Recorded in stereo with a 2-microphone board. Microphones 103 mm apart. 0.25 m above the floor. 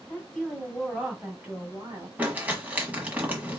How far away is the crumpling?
About 1.3 m.